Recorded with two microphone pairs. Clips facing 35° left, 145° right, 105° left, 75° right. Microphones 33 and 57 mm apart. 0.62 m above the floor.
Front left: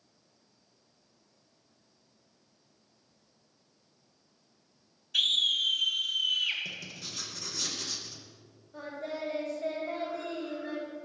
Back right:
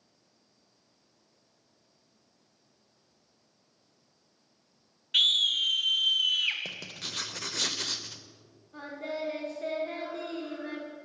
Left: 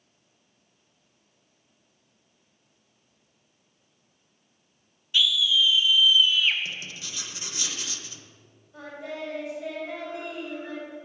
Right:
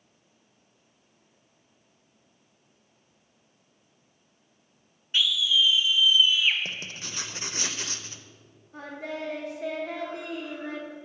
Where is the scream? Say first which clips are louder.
Back right 2 dB, left 1 dB; 125° right, 1.9 m; by 6.6 s 160° right, 1.5 m.